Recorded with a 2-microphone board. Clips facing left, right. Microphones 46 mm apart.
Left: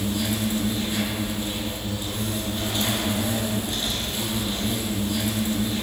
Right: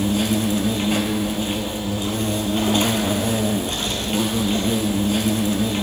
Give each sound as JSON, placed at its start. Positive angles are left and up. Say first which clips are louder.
{"t": 0.0, "sound": "an insect", "louder": "right 6 dB", "side_deg": -65, "distance_m": 1.2}